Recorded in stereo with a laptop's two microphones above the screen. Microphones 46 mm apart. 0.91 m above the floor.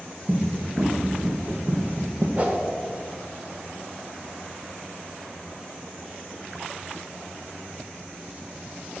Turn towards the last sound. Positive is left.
turn(degrees=-35)  # may be behind; listen again after turning